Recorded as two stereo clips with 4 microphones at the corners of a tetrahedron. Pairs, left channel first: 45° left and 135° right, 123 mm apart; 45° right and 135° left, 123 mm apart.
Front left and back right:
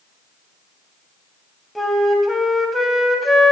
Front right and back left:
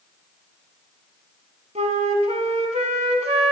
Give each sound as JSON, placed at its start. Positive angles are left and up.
{"t": 1.8, "sound": "a flute", "azimuth_deg": 135, "distance_m": 1.0}